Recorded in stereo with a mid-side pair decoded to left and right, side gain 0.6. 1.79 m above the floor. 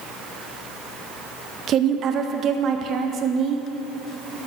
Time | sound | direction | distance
1.7 | a woman speaking | 45° right | 0.9 m